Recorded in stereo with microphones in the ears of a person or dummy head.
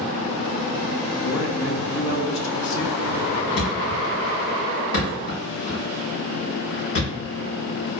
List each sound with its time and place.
1.2 s a man speaking: 65° left (ahead or behind), 0.7 m
3.6 s a thud: 60° left (ahead or behind), 1.9 m